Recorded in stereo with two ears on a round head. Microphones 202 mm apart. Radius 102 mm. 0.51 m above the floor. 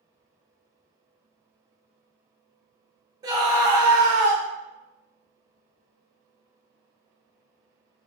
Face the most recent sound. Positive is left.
turn(degrees=-15)  # may be behind; listen again after turning